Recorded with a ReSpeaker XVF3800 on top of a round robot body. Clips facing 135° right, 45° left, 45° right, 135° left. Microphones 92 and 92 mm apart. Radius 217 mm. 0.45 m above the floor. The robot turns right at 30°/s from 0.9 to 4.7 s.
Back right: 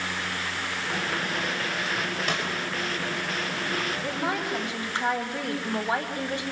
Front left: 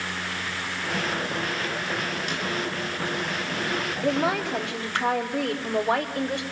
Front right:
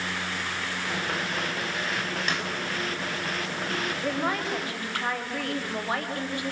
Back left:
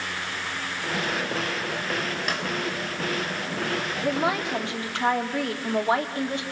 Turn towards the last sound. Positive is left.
turn(degrees=70)